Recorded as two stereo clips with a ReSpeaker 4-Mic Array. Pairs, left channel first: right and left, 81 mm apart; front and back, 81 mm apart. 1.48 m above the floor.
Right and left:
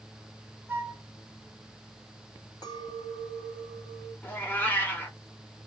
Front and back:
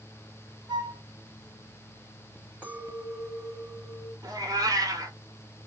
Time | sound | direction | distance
0.7 | a flute | 155° left | 0.7 m
2.6 | a clink | 110° right | 1.5 m
4.2 | a cat meowing | 150° right | 1.1 m